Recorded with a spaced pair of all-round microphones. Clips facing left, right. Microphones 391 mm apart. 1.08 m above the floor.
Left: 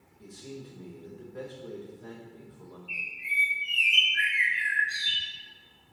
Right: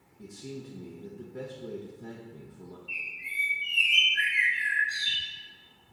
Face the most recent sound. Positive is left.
turn(degrees=15)  # may be behind; listen again after turning